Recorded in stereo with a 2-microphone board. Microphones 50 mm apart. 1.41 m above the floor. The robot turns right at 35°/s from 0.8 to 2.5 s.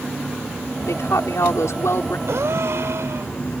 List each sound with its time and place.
0.9 s a woman speaking: 80° left; by 2.2 s 125° left
2.3 s a gasp: 75° right (ahead or behind); by 3.3 s 70° right (ahead or behind)